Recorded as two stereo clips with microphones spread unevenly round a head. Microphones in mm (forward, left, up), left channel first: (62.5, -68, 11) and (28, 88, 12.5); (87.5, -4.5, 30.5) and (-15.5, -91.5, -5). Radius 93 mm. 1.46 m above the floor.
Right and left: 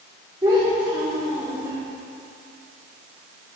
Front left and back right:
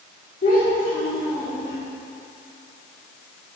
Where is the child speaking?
35° left, 2.5 m.